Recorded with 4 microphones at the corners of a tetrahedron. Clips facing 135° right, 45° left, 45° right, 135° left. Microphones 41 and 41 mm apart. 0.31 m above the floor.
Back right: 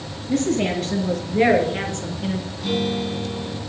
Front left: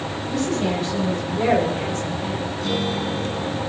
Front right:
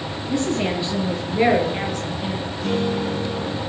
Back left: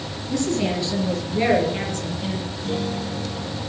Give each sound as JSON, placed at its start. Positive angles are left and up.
{"t": 0.3, "sound": "a woman speaking", "azimuth_deg": -110, "distance_m": 5.5}
{"t": 2.6, "sound": "a guitar", "azimuth_deg": -50, "distance_m": 3.0}